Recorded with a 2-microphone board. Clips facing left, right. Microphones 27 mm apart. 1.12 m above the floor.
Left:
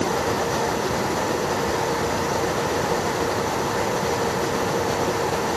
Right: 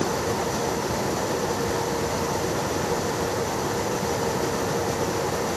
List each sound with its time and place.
Only background noise.